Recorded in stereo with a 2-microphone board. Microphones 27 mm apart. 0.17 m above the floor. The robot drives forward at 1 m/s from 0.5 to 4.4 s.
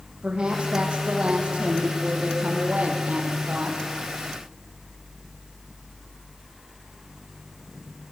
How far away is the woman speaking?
About 7 m.